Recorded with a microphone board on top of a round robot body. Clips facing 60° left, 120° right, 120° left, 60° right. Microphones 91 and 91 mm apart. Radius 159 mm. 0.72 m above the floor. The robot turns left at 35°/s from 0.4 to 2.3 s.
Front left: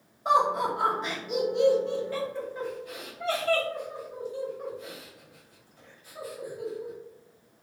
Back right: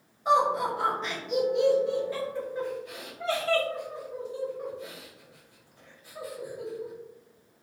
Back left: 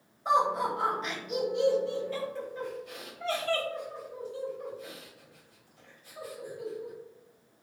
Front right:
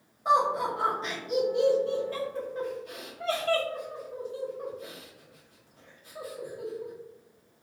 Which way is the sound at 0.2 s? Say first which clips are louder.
Even, front right 2 dB; 5° left.